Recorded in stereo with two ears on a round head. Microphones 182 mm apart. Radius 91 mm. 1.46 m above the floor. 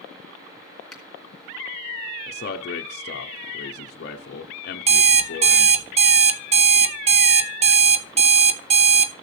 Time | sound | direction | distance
0.9 | a finger snap | 5° left (ahead or behind) | 3 m
2.3 | a man speaking | 50° left (ahead or behind) | 0.8 m
4.9 | an alarm clock | 30° right (ahead or behind) | 0.6 m